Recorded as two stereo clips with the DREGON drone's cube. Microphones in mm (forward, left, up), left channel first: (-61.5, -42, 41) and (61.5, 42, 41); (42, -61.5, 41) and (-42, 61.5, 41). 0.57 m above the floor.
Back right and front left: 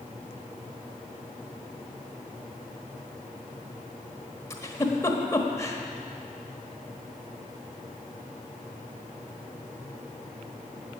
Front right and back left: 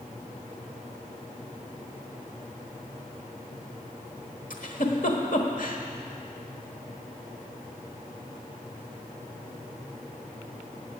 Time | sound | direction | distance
4.5 | a giggle | 80° right | 1.3 m